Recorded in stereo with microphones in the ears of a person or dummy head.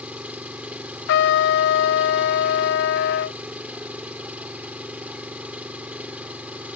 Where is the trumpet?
60° left (ahead or behind).